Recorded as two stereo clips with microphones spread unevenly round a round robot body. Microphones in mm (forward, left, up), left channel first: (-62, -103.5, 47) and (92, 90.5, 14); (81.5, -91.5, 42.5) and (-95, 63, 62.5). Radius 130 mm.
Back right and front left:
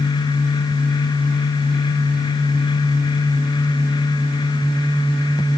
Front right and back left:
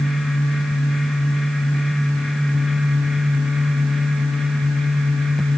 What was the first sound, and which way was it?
Only background noise.